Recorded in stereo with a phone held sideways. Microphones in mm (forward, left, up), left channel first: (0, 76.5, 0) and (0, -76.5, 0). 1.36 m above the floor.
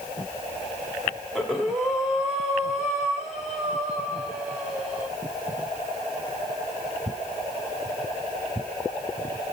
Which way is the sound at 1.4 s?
Centre (ahead or behind).